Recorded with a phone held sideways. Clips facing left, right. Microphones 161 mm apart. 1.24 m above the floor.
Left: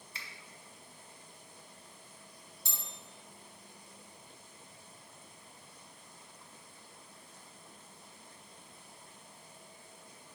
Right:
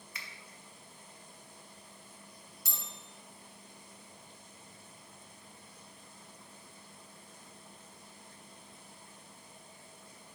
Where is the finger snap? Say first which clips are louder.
Even; 30° left (ahead or behind), 1.0 m.